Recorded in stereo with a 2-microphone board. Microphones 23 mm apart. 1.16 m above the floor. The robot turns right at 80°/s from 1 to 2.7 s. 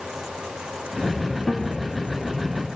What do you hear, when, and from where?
1.5 s a guitar: 25° left (ahead or behind), 2.5 m; by 1.7 s 40° left (ahead or behind), 2.5 m